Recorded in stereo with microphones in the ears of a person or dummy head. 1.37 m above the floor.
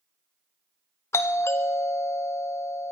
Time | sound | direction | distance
1.1 | a doorbell | 20° left (ahead or behind) | 0.7 m